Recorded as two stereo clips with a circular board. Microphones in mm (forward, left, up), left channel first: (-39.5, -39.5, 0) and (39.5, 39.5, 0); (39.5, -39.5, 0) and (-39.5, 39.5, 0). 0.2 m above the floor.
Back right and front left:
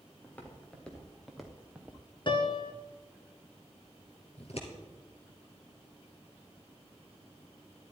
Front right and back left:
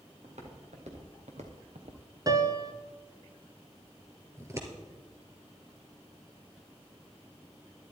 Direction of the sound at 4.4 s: 160° right.